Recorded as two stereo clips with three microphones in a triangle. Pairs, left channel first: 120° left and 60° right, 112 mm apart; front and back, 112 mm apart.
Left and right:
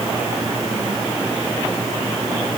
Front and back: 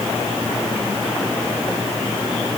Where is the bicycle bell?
I don't hear a bicycle bell.